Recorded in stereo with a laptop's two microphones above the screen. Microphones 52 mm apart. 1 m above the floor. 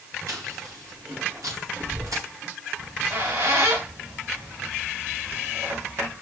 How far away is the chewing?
About 4.5 m.